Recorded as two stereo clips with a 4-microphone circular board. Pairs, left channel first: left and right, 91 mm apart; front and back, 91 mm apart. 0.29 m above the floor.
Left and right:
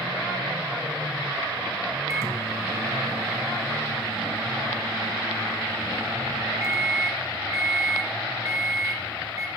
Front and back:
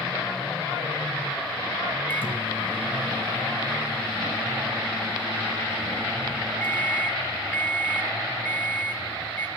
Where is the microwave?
55° right, 1.5 m.